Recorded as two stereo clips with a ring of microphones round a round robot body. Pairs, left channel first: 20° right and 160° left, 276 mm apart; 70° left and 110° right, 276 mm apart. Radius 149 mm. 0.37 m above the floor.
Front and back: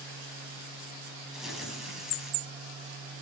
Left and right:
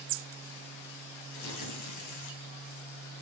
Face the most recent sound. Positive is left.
turn(degrees=70)